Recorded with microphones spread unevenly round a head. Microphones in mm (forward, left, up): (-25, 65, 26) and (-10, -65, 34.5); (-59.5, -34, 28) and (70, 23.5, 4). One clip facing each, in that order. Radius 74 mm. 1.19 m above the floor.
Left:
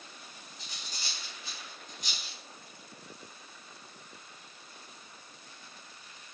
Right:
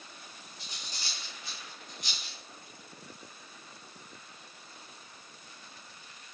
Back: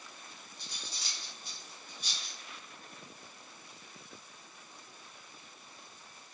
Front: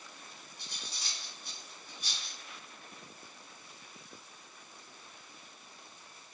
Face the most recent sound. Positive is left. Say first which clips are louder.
# even, even
turn(degrees=70)